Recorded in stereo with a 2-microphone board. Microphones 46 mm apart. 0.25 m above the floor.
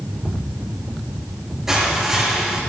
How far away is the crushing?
About 6 m.